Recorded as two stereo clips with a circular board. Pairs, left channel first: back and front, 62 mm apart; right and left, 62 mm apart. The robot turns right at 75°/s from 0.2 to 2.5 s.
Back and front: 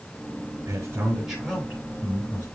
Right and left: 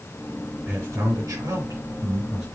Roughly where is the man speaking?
Ahead left.